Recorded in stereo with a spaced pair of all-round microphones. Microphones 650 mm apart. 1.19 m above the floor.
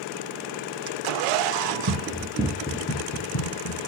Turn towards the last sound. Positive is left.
turn(degrees=50)  # may be behind; listen again after turning